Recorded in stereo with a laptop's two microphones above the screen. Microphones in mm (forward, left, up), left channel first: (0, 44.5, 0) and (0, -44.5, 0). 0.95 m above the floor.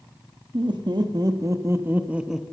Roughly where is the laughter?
Right.